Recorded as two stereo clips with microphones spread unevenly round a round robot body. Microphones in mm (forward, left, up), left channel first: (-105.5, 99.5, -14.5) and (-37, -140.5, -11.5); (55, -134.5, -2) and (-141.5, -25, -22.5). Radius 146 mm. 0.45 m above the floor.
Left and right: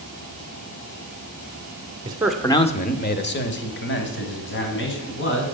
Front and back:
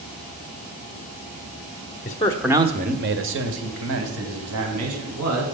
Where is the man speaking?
25° right, 0.9 m; by 5.5 s 145° left, 4 m.